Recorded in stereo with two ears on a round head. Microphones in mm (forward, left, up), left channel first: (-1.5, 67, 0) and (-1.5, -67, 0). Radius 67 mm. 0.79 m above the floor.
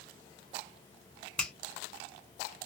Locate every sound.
1.4 s a finger snap: 5° left (ahead or behind), 1.0 m